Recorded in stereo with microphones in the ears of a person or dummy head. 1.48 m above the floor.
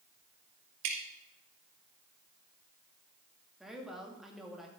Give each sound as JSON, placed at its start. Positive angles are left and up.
{"t": 0.8, "sound": "dripping", "side_deg": -75, "distance_m": 2.5}
{"t": 3.6, "sound": "a woman speaking", "side_deg": -5, "distance_m": 2.5}